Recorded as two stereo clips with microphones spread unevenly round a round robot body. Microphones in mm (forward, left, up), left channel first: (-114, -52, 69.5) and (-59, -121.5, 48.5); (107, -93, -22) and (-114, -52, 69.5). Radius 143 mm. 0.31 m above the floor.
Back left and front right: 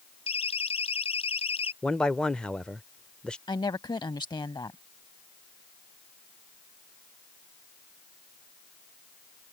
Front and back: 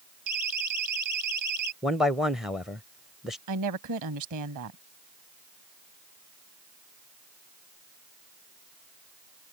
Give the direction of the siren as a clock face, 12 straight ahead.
7 o'clock.